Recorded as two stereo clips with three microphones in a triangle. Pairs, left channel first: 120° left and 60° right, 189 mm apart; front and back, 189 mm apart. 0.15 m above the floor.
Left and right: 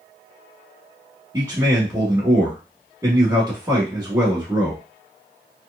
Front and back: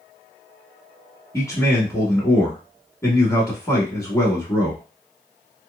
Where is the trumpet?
I don't hear a trumpet.